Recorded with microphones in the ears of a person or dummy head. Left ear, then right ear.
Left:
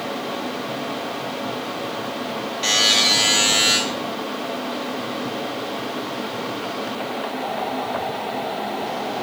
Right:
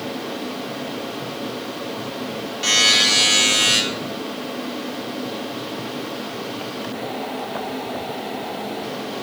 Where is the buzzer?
20° left (ahead or behind), 2.5 m.